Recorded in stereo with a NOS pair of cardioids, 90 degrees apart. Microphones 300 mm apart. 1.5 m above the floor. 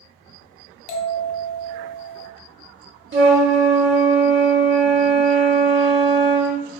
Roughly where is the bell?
Ahead left.